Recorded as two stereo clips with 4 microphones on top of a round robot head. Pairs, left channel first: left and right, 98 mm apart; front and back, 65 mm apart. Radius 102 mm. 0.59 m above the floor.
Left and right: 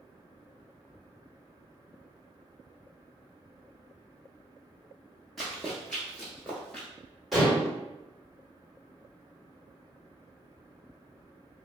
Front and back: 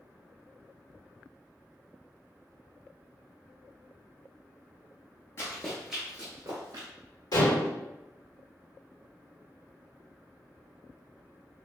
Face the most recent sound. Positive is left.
turn(degrees=0)